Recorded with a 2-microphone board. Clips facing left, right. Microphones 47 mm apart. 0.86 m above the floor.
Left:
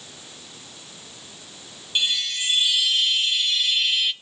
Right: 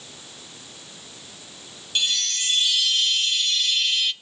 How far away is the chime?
About 1.1 m.